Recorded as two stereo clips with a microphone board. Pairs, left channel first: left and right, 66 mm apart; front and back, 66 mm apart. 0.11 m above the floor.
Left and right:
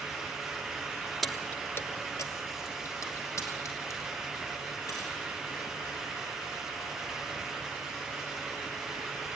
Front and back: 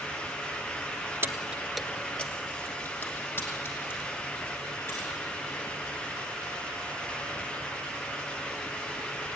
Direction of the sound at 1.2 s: Straight behind.